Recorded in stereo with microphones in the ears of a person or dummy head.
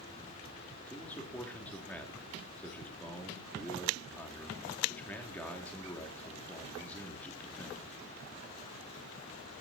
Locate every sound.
0.9 s a man speaking: 5° left (ahead or behind), 3 m